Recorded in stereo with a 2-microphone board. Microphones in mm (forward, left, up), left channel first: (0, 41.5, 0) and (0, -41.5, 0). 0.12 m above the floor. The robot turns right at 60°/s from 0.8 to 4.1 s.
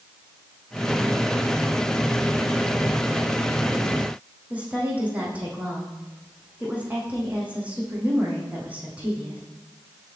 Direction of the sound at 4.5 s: 15° right (ahead or behind).